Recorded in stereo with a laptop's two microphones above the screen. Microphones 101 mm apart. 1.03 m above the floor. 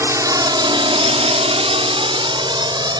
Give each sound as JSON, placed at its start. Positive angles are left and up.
{"t": 0.0, "sound": "a drone", "side_deg": -30}